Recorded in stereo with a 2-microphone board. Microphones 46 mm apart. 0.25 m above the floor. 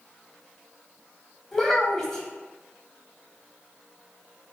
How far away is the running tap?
I don't hear a running tap.